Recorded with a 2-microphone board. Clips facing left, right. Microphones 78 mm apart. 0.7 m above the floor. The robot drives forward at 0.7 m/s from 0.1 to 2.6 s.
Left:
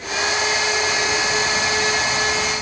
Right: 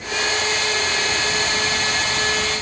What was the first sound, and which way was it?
Only background noise.